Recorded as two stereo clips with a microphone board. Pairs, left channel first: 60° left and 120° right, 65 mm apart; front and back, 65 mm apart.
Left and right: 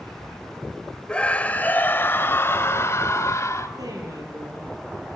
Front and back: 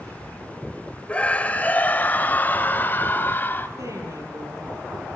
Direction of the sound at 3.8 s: 145° right.